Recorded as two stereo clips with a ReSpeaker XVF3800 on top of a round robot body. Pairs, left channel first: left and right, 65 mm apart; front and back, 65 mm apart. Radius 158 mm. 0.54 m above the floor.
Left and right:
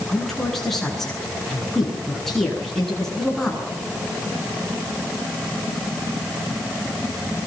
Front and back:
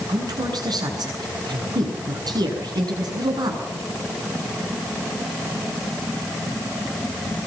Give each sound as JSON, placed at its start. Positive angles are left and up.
{"t": 0.1, "sound": "a woman speaking", "azimuth_deg": 175, "distance_m": 9.5}